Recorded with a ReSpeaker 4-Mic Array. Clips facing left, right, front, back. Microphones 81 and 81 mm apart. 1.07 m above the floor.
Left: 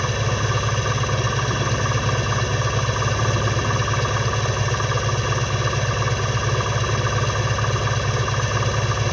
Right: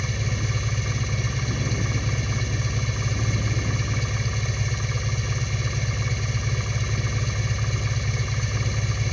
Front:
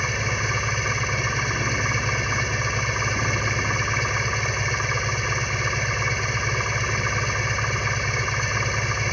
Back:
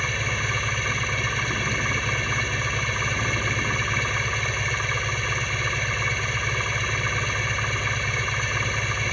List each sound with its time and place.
0.0 s an engine running: 80° left